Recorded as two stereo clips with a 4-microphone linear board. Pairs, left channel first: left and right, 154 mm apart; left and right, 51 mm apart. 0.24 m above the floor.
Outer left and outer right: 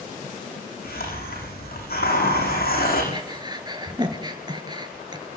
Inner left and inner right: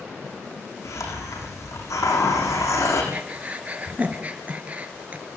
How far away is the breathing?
About 3 m.